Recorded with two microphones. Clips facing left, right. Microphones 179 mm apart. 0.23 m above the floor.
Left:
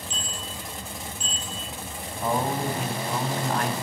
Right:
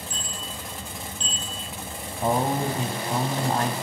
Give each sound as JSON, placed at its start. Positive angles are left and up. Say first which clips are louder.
{"t": 0.1, "sound": "a bicycle bell", "louder": "even", "side_deg": 25, "distance_m": 4.5}
{"t": 2.2, "sound": "a man speaking", "louder": "right 2 dB", "side_deg": -30, "distance_m": 1.1}